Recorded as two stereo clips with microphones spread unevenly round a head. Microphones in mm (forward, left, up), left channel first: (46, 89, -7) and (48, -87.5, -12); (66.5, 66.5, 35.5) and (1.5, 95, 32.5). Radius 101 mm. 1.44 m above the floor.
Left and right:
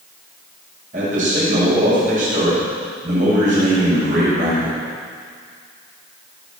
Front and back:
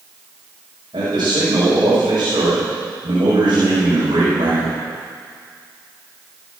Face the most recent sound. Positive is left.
turn(degrees=-145)